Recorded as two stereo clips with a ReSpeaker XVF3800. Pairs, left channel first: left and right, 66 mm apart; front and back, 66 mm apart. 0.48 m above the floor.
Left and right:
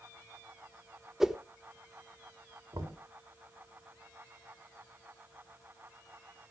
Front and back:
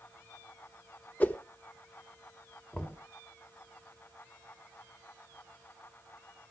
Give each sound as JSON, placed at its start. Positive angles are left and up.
{"t": 1.2, "sound": "a whoosh", "azimuth_deg": -15, "distance_m": 1.0}
{"t": 2.7, "sound": "knocking", "azimuth_deg": -70, "distance_m": 3.5}